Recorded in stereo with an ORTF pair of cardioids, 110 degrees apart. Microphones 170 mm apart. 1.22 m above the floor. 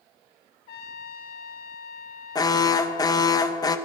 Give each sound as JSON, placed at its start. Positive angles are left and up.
{"t": 0.7, "sound": "a trumpet", "azimuth_deg": 65, "distance_m": 0.7}
{"t": 2.4, "sound": "an alarm", "azimuth_deg": 20, "distance_m": 0.7}